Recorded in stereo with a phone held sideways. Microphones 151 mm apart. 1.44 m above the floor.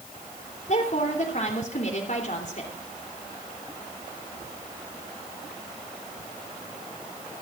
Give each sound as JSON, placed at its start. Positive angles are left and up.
{"t": 0.7, "sound": "a woman speaking", "side_deg": 55, "distance_m": 3.0}